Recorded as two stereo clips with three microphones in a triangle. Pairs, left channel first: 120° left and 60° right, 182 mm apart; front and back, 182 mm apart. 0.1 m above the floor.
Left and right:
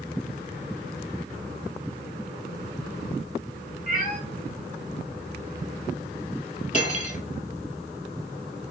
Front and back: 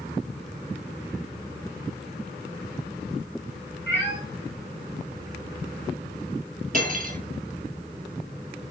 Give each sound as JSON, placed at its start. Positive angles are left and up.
{"t": 3.9, "sound": "a cat meowing", "azimuth_deg": -10, "distance_m": 1.8}
{"t": 6.7, "sound": "cutlery clinking", "azimuth_deg": 155, "distance_m": 1.3}